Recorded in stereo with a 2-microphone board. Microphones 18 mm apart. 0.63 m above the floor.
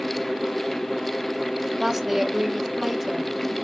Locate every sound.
1.8 s a woman speaking: 20° right (ahead or behind), 0.8 m